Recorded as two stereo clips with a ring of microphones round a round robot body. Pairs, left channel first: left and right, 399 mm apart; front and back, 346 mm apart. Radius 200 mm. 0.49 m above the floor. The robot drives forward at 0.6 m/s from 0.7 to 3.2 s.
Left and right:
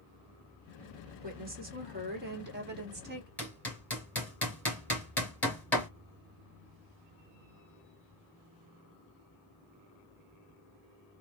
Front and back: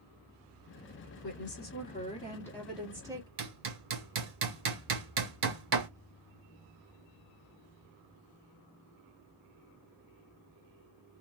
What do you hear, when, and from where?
1.2 s a woman speaking: 30° right, 1.6 m; by 3.3 s 115° right, 1.4 m
3.4 s hammering: 175° left, 2 m